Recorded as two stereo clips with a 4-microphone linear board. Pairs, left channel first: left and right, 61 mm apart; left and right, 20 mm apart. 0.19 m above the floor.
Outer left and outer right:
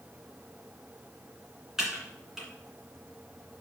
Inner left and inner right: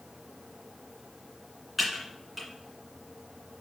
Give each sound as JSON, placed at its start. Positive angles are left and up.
{"t": 1.8, "sound": "typing on a keyboard", "side_deg": -5, "distance_m": 2.0}